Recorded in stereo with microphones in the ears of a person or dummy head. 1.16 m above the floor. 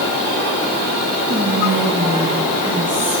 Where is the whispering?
25° right (ahead or behind), 2 m.